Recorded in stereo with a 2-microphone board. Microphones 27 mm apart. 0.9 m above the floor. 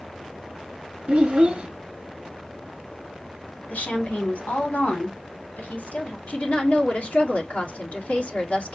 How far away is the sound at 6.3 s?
About 1.8 m.